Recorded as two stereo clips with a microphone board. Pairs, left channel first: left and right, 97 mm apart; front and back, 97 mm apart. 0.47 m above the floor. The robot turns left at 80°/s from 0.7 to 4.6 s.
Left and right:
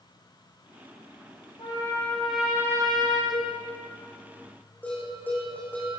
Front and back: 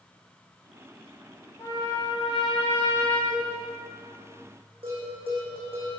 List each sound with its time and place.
1.6 s a trumpet: 55° left, 9.5 m; by 3.2 s 75° right, 9.5 m
3.3 s a cowbell: 135° left, 3.5 m; by 3.5 s 115° left, 3.5 m
4.8 s a bell: 160° left, 8 m